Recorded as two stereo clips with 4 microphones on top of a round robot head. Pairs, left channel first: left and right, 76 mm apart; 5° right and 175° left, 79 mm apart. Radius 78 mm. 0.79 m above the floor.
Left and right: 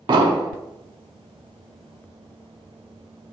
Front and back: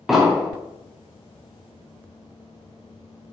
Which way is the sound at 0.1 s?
95° right.